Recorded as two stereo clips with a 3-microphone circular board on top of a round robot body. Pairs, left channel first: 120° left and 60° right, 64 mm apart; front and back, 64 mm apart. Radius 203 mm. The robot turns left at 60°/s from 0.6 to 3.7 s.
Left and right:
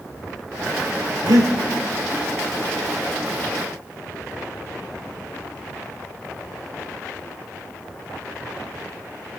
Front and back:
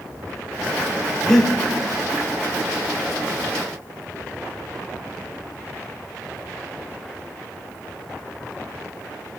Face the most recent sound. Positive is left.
turn(degrees=140)